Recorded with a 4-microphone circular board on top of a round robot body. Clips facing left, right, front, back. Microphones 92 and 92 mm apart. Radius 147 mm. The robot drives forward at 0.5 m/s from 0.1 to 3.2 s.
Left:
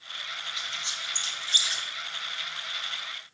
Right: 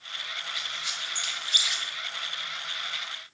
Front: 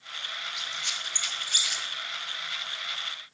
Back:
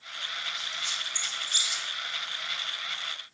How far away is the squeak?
About 2 m.